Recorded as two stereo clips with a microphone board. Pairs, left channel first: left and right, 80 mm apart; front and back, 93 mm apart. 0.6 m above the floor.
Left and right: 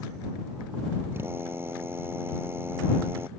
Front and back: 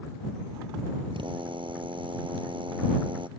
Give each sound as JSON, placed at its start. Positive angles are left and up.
{"t": 1.1, "sound": "a drill", "azimuth_deg": -150}